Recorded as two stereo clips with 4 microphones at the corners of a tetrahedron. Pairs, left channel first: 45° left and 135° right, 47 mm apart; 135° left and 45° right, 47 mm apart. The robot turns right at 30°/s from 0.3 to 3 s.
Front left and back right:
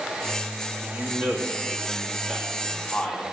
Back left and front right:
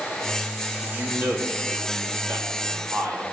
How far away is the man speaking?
About 3 m.